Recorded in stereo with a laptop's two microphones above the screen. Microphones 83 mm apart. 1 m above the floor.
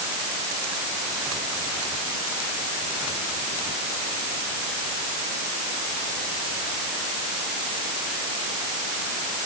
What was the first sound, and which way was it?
Only background noise.